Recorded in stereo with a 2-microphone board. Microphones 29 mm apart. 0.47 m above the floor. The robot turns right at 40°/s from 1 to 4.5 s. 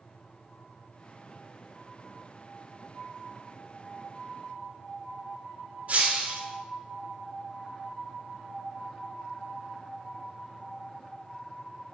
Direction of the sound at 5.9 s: 50° right (ahead or behind).